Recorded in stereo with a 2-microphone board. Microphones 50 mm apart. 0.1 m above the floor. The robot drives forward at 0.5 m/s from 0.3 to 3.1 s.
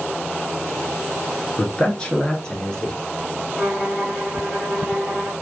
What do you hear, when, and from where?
1.6 s a man speaking: 20° left (ahead or behind), 1.1 m; by 2.9 s 15° left (ahead or behind), 1.5 m
3.6 s a violin: 5° right (ahead or behind), 1.9 m